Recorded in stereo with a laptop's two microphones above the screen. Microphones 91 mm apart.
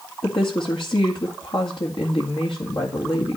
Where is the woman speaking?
60° left (ahead or behind), 2.0 m.